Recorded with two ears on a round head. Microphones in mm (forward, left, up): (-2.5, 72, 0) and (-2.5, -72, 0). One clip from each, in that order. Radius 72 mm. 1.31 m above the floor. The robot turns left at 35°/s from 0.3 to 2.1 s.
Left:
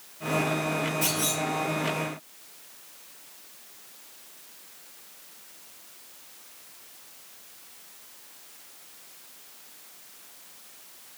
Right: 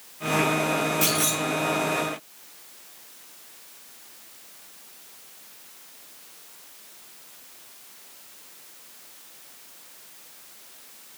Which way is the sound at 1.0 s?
30° right (ahead or behind).